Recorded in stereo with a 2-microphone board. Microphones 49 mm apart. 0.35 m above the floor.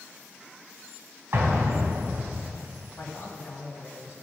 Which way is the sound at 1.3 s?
50° right (ahead or behind).